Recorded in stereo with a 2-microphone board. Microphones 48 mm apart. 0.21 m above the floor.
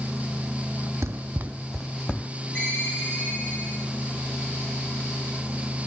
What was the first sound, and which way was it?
Running footsteps, 75° right (ahead or behind).